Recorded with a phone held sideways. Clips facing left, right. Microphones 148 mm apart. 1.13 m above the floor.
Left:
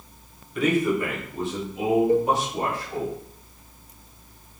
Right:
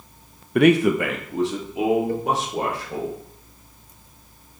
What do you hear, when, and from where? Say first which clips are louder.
0.6 s a man speaking: right 6 dB; 65° right (ahead or behind), 0.7 m; by 3.1 s 85° right, 4 m
2.1 s a cowbell: left 4 dB; 20° left (ahead or behind), 0.7 m